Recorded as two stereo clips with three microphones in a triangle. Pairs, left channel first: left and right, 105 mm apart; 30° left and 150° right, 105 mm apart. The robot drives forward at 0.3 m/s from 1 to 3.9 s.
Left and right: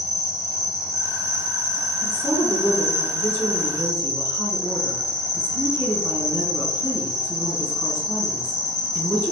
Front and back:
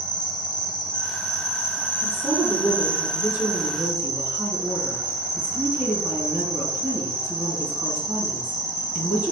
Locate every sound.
0.0 s an insect: 50° left, 1.2 m; by 9.3 s 125° left, 1.2 m
2.0 s a woman speaking: 110° left, 1.3 m; by 9.3 s 145° left, 1.5 m